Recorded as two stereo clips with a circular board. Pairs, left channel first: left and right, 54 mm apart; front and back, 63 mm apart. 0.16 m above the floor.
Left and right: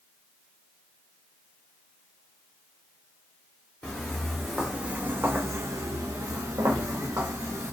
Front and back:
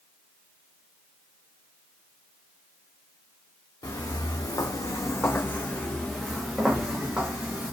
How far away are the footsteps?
About 0.8 m.